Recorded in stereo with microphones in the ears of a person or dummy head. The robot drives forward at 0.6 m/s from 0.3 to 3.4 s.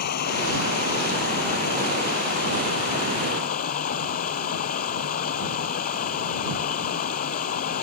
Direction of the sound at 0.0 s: 55° left (ahead or behind).